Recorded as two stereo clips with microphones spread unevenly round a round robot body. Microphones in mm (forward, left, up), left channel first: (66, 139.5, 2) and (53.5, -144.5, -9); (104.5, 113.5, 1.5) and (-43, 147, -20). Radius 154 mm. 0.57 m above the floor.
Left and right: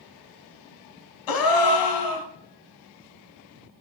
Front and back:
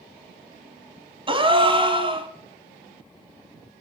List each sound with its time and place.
1.3 s a gasp: 110° left, 1.2 m